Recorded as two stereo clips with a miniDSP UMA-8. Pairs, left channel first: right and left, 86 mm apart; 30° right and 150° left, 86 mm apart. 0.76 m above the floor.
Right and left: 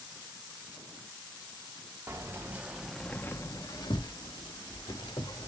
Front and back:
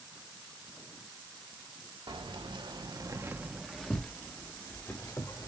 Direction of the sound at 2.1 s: 145° left.